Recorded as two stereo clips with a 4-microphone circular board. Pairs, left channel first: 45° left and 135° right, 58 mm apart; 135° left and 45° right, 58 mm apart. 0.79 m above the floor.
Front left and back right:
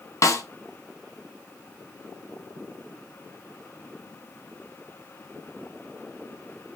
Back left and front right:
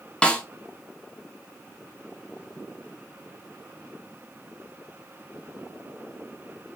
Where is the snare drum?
65° left, 0.8 m.